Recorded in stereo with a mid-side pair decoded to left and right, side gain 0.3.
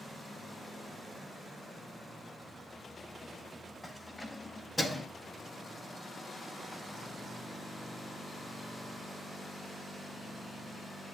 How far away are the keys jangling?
About 7 m.